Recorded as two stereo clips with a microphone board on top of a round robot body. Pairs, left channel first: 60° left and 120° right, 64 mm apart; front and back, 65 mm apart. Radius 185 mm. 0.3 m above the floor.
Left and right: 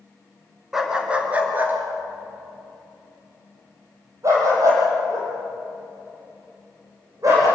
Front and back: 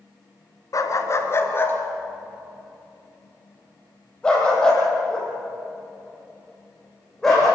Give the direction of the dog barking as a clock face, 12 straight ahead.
1 o'clock.